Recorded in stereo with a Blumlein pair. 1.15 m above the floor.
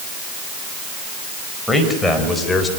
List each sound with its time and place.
1.7 s a man speaking: 5° left, 5 m; by 2.7 s 15° left, 3.5 m